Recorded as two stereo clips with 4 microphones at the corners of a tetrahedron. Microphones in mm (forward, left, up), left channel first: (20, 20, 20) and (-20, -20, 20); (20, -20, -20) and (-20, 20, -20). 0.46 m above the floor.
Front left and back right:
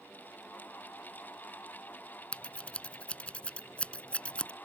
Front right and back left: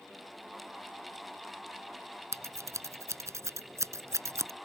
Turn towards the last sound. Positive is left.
turn(degrees=115)